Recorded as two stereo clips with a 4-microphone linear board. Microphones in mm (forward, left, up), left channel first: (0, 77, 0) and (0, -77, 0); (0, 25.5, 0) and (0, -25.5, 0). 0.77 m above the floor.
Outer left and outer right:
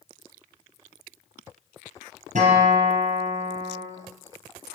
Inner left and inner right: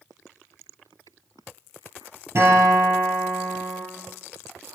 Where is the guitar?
50° right (ahead or behind), 4.5 m.